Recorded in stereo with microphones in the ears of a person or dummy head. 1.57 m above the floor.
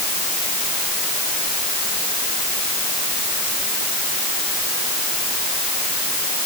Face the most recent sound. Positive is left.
No sound to turn to.